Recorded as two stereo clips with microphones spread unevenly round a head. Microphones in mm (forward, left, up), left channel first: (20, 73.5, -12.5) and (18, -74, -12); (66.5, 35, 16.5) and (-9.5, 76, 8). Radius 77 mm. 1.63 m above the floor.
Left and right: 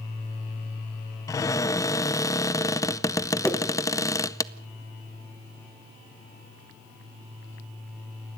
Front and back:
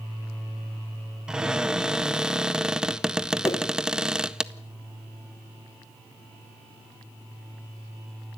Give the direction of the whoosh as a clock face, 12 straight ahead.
12 o'clock.